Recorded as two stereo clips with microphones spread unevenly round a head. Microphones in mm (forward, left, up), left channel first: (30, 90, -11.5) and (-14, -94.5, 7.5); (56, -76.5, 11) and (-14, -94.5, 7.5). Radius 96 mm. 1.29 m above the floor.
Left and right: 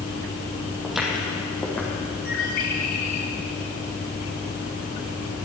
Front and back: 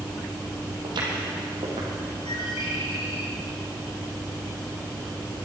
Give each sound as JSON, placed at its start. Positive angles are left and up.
{"t": 0.8, "sound": "footsteps", "azimuth_deg": 170, "distance_m": 3.0}
{"t": 2.2, "sound": "a bird", "azimuth_deg": 35, "distance_m": 2.5}